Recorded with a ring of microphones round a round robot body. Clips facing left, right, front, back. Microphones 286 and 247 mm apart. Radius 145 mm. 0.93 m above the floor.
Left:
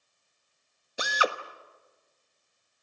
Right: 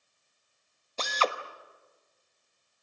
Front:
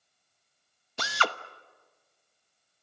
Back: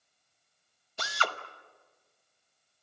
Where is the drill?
10° left, 1.1 m.